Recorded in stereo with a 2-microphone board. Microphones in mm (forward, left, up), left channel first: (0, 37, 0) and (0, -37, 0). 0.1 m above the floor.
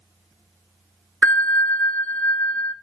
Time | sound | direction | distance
1.2 | a bell | 20° left (ahead or behind) | 0.6 m